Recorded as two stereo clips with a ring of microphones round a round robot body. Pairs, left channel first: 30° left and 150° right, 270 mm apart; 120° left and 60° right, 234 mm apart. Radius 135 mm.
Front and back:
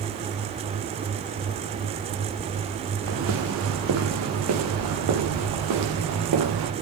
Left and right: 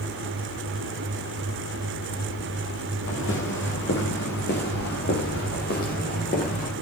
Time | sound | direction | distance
3.1 | footsteps | 170° left | 4 m